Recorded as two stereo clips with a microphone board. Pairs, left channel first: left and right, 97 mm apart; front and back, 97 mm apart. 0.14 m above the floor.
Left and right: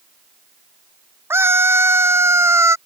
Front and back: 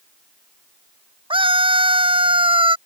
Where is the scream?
155° right.